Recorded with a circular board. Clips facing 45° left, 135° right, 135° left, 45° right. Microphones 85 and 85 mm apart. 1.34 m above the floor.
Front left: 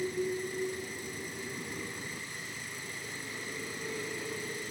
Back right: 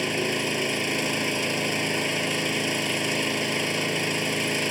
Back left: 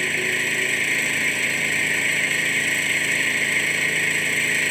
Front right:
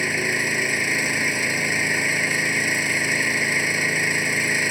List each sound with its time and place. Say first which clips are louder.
0.0 s an engine running: back right 6 dB, front right 1 dB; 120° right